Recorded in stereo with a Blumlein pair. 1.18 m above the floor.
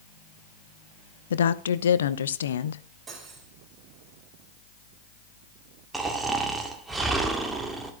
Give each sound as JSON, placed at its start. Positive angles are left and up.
{"t": 1.3, "sound": "a woman speaking", "azimuth_deg": 65, "distance_m": 0.8}
{"t": 3.1, "sound": "cutlery clinking", "azimuth_deg": -20, "distance_m": 3.5}
{"t": 5.9, "sound": "snoring", "azimuth_deg": -10, "distance_m": 1.9}